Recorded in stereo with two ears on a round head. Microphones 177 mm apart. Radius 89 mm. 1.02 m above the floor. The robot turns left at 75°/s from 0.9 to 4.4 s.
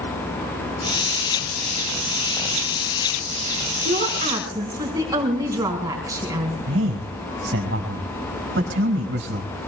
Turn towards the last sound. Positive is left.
turn(degrees=-60)  # may be behind; listen again after turning